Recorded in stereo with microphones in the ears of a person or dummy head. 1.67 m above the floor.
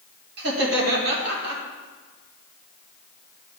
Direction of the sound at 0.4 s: 60° right (ahead or behind).